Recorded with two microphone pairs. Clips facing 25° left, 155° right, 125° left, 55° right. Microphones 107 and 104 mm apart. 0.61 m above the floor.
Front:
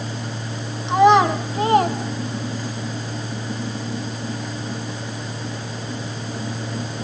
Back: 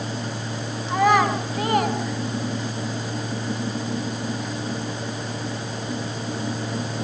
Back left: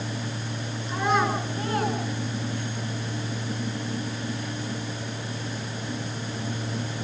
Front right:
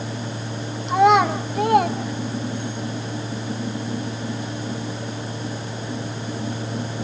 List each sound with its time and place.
0.9 s a child speaking: 40° right, 5 m; by 2.8 s 25° right, 4.5 m